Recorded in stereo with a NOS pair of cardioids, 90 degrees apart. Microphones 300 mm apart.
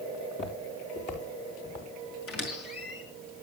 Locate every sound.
0.1 s footsteps: 40° left, 5 m; by 1.9 s 30° left, 5 m
2.3 s a squeak: 50° left, 7 m